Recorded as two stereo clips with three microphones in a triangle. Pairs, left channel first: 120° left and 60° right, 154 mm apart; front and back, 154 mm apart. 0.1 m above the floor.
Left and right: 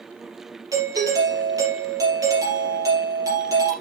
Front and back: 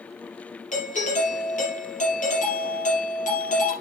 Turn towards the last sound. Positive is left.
turn(degrees=0)